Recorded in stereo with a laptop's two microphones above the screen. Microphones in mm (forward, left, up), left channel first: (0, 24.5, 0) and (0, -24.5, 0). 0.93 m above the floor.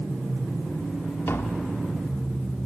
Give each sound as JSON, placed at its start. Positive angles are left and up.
{"t": 1.3, "sound": "tapping", "side_deg": 60, "distance_m": 1.1}